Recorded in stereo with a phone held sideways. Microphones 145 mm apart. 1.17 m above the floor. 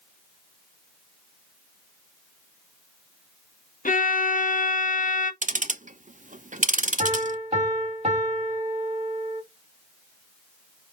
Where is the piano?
45° right (ahead or behind), 2.5 m.